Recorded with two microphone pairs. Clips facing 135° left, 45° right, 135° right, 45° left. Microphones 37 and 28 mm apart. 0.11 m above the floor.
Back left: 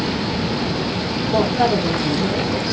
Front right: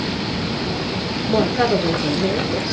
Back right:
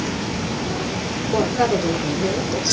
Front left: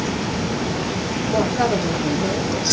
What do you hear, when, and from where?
1.3 s a woman speaking: 50° right, 1.7 m